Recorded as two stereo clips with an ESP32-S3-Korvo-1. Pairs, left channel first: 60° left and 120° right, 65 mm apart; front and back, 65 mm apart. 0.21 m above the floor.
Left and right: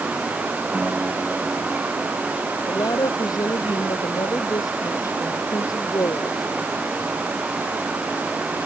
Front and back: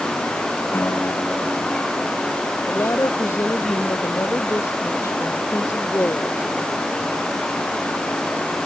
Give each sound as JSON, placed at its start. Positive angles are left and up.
{"t": 0.7, "sound": "a guitar", "azimuth_deg": -50}
{"t": 2.7, "sound": "a woman speaking", "azimuth_deg": 45}